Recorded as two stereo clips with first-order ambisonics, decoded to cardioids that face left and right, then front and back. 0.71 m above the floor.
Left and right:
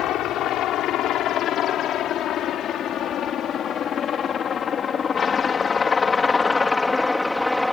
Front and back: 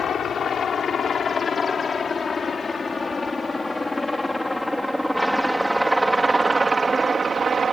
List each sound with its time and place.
0.0 s a helicopter: 60° left; by 7.7 s 170° left